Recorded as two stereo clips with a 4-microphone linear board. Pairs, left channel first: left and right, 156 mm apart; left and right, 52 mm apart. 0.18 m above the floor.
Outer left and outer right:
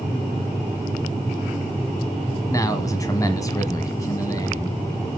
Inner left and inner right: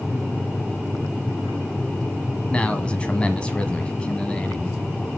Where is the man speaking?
20° left (ahead or behind), 1.4 m.